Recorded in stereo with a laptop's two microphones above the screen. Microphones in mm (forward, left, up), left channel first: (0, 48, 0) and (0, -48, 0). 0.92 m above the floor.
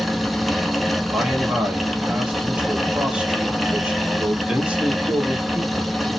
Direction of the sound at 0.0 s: Centre (ahead or behind).